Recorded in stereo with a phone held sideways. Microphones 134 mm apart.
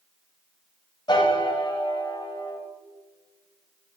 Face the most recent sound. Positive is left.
turn(degrees=35)  # may be behind; listen again after turning